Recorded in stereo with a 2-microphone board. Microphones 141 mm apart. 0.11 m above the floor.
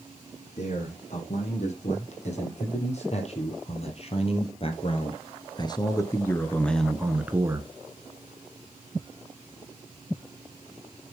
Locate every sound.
0.6 s a man speaking: 55° left (ahead or behind), 5.5 m; by 7.7 s 25° right (ahead or behind), 1.4 m